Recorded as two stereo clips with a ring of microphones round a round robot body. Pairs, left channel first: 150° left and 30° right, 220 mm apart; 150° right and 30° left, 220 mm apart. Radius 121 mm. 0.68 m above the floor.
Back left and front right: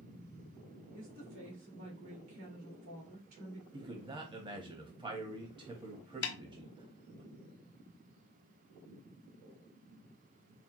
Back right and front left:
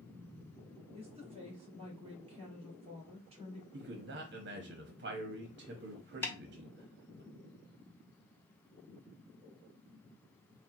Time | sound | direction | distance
0.9 | a woman speaking | 30° right | 2.5 m
3.7 | a man speaking | 30° left | 0.9 m
6.2 | a snare drum | 130° left | 0.7 m